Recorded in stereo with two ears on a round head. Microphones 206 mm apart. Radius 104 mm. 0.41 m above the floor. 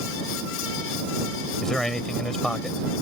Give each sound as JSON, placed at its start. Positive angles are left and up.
{"t": 1.6, "sound": "a man speaking", "side_deg": 5}